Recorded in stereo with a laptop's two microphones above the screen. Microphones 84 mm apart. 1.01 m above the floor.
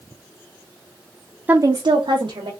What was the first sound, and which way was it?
A woman speaking, 20° right (ahead or behind).